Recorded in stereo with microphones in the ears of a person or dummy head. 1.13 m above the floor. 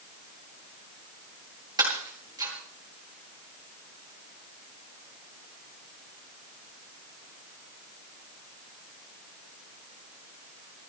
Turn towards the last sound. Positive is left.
turn(degrees=-20)  # may be behind; listen again after turning